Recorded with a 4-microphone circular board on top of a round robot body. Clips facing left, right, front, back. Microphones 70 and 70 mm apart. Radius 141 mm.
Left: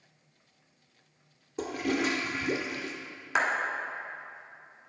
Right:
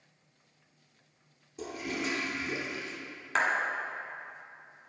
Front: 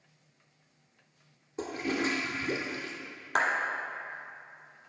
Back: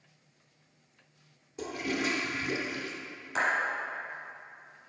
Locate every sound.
1.6 s a toilet flushing: 55° left, 0.6 m
3.4 s a clap: 5° left, 1.4 m